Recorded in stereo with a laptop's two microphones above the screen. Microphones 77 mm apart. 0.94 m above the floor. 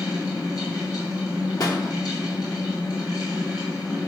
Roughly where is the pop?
Left.